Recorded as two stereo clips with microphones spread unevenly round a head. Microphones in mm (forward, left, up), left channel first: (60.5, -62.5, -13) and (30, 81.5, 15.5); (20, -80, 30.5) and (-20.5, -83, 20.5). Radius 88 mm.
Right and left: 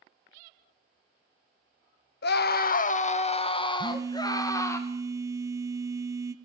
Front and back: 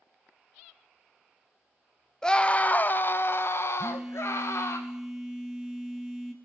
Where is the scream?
70° right, 0.9 m; by 4.8 s 5° right, 2 m.